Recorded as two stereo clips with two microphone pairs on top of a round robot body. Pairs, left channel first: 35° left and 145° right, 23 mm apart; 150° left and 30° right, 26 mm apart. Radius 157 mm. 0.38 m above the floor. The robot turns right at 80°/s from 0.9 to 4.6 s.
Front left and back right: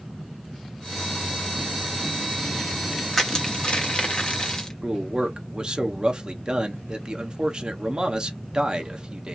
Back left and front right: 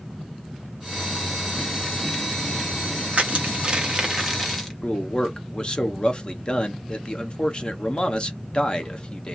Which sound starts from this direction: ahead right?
Crushing, at 3.1 s.